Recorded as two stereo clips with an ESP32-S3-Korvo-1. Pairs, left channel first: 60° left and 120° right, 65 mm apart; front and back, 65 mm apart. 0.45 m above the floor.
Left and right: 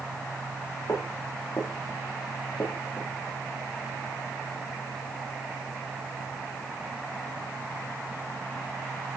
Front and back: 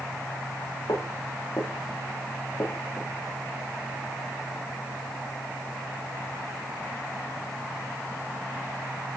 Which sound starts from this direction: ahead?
Footsteps, at 0.9 s.